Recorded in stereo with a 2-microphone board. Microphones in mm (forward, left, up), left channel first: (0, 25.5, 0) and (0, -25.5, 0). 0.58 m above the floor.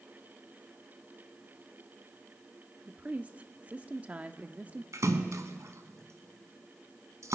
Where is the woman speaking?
30° right (ahead or behind), 0.8 m.